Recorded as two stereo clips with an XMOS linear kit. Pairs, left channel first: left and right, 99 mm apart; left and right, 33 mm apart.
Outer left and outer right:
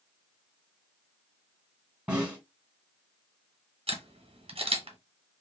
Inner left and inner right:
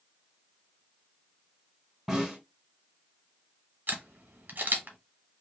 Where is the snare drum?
10° right (ahead or behind), 2 m.